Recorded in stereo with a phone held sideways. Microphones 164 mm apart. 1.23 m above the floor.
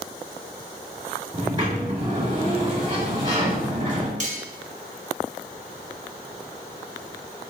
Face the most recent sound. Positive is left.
turn(degrees=-45)  # may be behind; listen again after turning